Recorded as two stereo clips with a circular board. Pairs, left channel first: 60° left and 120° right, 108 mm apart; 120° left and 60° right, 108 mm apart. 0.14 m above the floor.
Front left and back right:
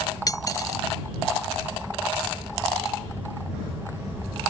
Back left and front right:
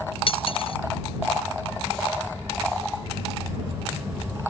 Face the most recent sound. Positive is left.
turn(degrees=110)